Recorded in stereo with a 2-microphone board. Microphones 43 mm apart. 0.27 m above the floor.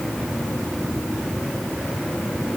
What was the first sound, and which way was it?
Only background noise.